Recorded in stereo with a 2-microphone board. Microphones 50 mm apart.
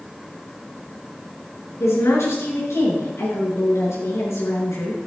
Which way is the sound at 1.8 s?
70° left (ahead or behind).